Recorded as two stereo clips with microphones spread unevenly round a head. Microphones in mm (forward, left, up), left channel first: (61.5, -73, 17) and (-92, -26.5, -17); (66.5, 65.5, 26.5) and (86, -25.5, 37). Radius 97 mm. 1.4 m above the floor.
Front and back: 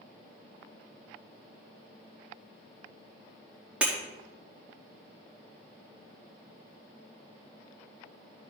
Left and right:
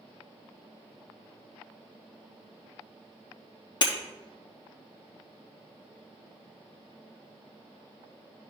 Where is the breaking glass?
70° left, 1.1 m.